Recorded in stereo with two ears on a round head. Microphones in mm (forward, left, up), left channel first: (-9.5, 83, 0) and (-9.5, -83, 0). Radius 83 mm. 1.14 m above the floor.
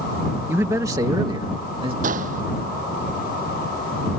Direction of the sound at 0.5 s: 15° right (ahead or behind).